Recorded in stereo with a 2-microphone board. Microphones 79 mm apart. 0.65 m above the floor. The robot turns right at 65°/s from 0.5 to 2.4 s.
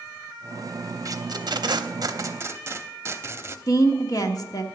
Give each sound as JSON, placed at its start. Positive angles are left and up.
{"t": 1.1, "sound": "tape being pulled", "side_deg": -45, "distance_m": 0.8}
{"t": 3.7, "sound": "a woman speaking", "side_deg": 50, "distance_m": 1.1}